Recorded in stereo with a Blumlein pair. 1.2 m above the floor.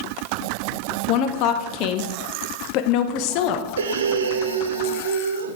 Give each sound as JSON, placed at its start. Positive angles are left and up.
{"t": 1.1, "sound": "a woman speaking", "azimuth_deg": 40, "distance_m": 0.8}
{"t": 3.8, "sound": "breathing", "azimuth_deg": -65, "distance_m": 0.6}